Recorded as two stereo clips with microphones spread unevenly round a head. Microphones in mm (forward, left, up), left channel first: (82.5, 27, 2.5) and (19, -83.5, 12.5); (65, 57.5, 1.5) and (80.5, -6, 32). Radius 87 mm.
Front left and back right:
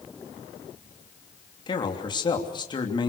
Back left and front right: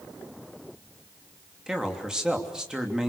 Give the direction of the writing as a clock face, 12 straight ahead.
No writing in this recording.